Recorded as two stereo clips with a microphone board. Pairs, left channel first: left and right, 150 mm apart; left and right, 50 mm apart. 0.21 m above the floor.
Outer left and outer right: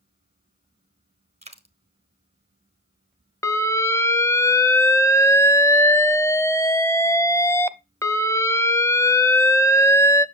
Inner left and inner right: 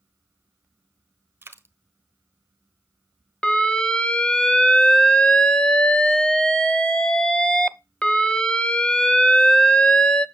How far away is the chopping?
No chopping in this recording.